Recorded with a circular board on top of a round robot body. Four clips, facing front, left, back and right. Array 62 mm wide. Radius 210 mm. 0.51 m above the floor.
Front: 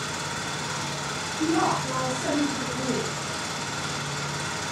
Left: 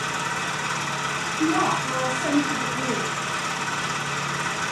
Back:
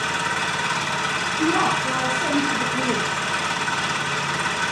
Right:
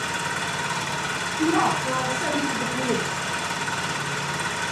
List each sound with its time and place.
0.0 s an engine running: 165° right, 5.5 m
1.4 s a woman speaking: 125° right, 6.5 m